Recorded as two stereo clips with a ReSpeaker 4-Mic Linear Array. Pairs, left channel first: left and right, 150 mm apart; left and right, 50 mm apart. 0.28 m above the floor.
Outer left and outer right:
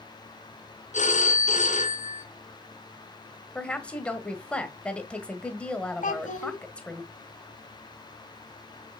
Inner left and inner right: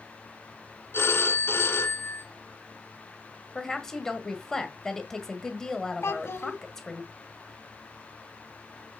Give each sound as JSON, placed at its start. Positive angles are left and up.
{"t": 0.9, "sound": "a phone ringing", "side_deg": 55, "distance_m": 2.0}
{"t": 3.5, "sound": "a woman speaking", "side_deg": 10, "distance_m": 1.5}
{"t": 6.0, "sound": "a child speaking", "side_deg": 60, "distance_m": 1.3}